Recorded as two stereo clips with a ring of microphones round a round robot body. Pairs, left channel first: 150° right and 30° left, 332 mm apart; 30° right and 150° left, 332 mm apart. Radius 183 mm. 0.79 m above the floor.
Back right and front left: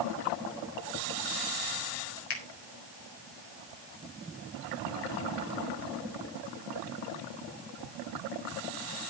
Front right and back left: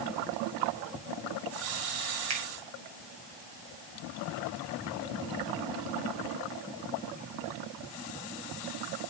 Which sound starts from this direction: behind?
A finger snap, at 2.3 s.